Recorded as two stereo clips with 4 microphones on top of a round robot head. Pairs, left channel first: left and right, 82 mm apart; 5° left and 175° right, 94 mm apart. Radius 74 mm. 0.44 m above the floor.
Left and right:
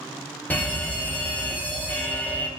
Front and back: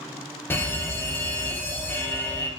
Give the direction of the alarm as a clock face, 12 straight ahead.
11 o'clock.